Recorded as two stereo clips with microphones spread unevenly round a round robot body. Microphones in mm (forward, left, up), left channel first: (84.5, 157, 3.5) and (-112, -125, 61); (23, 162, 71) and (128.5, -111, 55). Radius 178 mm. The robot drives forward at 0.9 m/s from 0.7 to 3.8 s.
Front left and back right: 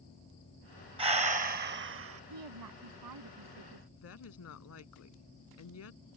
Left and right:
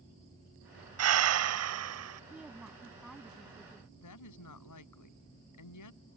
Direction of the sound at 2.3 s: 155° right.